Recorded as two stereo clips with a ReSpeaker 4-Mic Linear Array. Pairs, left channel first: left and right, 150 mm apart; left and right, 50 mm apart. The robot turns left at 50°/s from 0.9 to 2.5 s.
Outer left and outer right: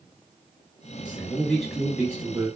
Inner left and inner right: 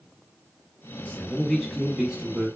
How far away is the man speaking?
About 1.1 m.